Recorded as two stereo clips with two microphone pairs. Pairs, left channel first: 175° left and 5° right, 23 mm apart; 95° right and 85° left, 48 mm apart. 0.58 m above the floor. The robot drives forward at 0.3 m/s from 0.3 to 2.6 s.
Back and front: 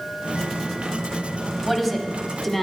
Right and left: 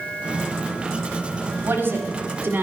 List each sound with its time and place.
1.6 s a woman speaking: 100° left, 1.8 m; by 2.6 s 110° left, 1.8 m